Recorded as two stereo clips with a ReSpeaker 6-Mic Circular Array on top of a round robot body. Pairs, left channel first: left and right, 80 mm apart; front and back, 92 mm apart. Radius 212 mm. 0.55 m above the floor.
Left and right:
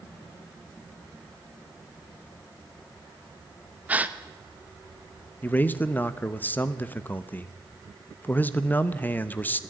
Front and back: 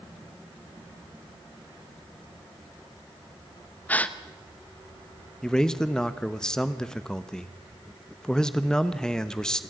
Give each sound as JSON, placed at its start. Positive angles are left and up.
{"t": 3.9, "sound": "a gasp", "azimuth_deg": -50, "distance_m": 1.3}
{"t": 5.4, "sound": "a man speaking", "azimuth_deg": 70, "distance_m": 1.3}